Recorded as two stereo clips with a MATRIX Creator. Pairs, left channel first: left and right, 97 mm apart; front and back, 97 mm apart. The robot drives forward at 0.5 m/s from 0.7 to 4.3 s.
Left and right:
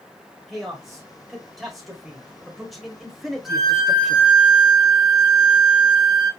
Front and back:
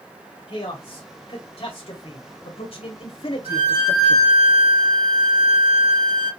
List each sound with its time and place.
0.5 s a man speaking: straight ahead, 2 m; by 4.3 s 5° right, 0.5 m
3.5 s a violin: straight behind, 3 m